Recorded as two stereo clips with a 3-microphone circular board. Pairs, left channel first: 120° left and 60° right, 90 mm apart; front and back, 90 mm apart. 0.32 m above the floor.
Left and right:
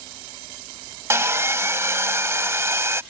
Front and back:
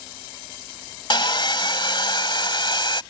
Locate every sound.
1.1 s sawing: 5° right